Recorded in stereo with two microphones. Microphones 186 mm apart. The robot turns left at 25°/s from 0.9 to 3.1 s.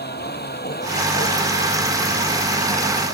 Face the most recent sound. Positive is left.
turn(degrees=75)  # may be behind; listen again after turning